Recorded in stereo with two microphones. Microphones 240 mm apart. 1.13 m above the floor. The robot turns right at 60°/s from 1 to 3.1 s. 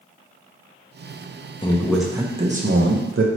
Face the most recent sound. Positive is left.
turn(degrees=-115)